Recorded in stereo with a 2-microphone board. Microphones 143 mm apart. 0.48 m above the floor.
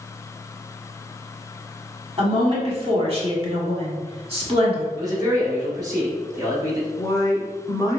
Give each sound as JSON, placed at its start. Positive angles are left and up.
{"t": 2.2, "sound": "a woman speaking", "side_deg": -40, "distance_m": 1.3}
{"t": 5.0, "sound": "a man speaking", "side_deg": -25, "distance_m": 1.7}
{"t": 7.0, "sound": "a woman speaking", "side_deg": 25, "distance_m": 0.8}